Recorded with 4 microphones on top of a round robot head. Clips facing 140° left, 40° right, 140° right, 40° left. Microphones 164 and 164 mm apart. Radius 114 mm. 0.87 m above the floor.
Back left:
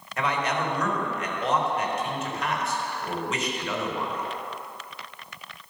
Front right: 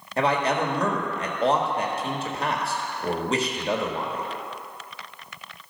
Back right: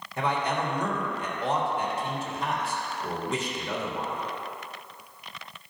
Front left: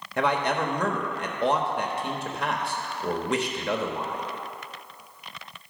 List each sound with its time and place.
0.2 s a man speaking: 20° left, 1.3 m